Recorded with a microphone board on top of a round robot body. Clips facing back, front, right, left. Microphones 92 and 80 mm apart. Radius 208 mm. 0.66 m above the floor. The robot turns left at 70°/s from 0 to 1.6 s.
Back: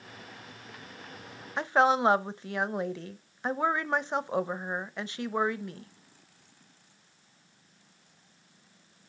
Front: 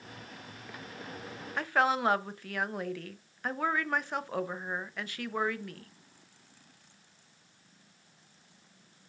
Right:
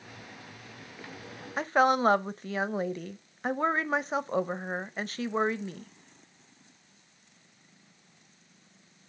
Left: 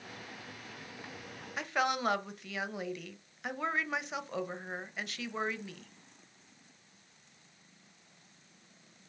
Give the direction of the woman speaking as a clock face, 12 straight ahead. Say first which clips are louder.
Back 4 dB, right 8 dB; 4 o'clock.